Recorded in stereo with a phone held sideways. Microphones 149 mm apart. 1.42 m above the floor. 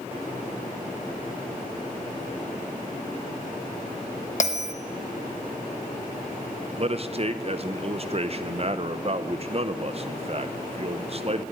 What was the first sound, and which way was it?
A bell, 55° left (ahead or behind).